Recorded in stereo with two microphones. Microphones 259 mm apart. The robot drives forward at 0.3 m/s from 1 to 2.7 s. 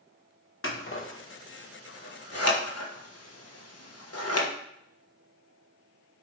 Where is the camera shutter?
I don't hear a camera shutter.